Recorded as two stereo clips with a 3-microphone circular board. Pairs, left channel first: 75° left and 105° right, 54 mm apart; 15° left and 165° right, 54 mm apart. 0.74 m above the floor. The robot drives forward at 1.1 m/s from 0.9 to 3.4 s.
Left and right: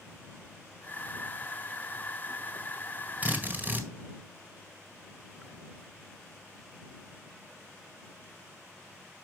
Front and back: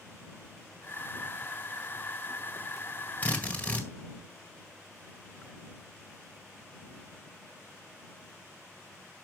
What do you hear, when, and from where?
3.2 s a drill: 45° right, 1.8 m; by 3.9 s 50° right, 1.7 m